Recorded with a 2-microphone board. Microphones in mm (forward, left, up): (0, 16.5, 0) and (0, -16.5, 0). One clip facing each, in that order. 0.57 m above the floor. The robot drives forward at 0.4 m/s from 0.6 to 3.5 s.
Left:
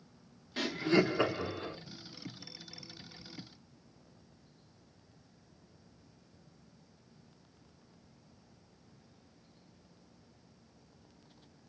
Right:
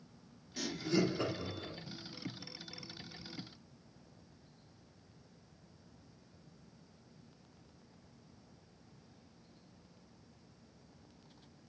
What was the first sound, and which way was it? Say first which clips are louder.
Laughter: left 5 dB; 45° left (ahead or behind).